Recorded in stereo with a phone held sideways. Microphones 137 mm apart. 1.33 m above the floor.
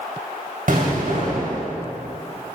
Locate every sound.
0.7 s an explosion: 75° right (ahead or behind), 2.5 m